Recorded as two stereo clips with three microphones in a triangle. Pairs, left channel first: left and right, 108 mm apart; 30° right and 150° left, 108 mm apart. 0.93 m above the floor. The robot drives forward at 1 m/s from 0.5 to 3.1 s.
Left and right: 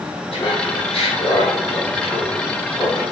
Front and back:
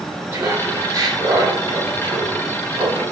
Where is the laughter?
85° left, 3 m; by 3.0 s 130° left, 3.5 m.